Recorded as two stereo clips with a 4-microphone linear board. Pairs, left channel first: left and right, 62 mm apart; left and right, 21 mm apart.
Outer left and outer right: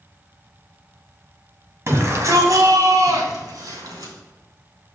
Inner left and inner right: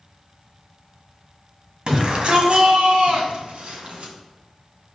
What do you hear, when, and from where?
1.9 s a shout: 45° right (ahead or behind), 2 m; by 4.1 s 75° right (ahead or behind), 3.5 m